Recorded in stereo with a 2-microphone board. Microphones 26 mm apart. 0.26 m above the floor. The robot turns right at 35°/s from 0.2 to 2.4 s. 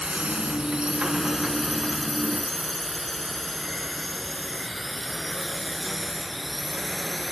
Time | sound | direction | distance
0.0 | a drone | 45° right (ahead or behind) | ?